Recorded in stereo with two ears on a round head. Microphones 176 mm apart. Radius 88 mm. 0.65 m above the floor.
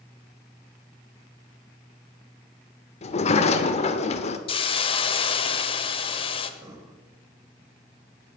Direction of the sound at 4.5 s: 25° left (ahead or behind).